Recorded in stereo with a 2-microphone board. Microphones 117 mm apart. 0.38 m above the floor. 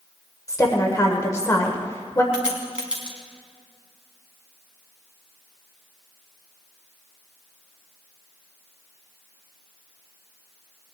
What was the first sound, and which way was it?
A woman speaking, 30° left (ahead or behind).